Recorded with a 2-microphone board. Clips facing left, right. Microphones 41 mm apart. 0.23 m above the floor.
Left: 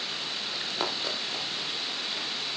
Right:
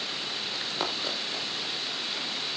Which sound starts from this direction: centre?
Running footsteps, at 0.5 s.